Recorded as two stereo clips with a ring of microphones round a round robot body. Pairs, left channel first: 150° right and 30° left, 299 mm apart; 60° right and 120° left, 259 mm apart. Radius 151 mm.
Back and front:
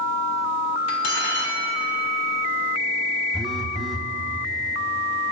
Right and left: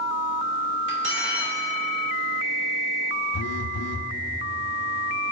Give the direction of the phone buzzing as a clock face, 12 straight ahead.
2 o'clock.